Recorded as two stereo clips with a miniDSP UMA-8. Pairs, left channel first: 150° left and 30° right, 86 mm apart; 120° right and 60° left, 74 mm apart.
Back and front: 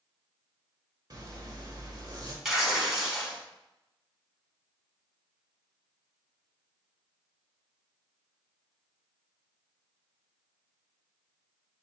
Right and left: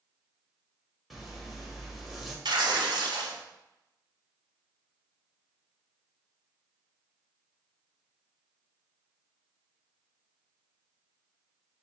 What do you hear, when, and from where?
1.1 s a zipper: 25° right, 0.9 m
2.5 s tearing paper: 55° left, 1.0 m